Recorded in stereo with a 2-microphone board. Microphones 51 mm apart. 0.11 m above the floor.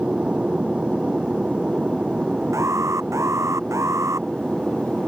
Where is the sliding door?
I don't hear a sliding door.